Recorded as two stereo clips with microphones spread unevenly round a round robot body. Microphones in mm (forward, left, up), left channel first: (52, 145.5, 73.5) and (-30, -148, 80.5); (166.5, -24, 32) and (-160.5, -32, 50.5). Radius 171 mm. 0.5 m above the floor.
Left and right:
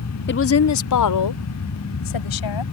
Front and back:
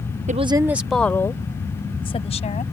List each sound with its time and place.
0.3 s a woman speaking: 115° left; by 2.6 s 75° left